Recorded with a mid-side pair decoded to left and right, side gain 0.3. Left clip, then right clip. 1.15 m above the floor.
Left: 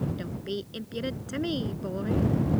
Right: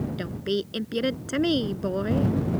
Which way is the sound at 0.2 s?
65° right.